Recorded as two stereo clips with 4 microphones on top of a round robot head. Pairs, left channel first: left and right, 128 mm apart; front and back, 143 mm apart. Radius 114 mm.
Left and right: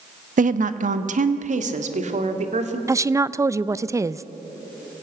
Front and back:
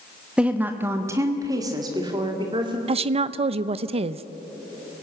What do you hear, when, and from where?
0.4 s a woman speaking: 100° right, 1.1 m; by 2.8 s 120° right, 2.5 m
2.9 s a woman speaking: 150° right, 0.6 m